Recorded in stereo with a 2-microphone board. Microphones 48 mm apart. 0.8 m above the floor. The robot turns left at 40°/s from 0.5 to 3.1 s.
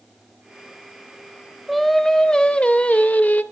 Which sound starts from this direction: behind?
Singing, at 1.7 s.